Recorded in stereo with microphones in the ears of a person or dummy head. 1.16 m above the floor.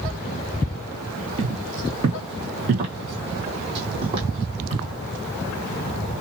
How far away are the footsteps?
About 1.3 m.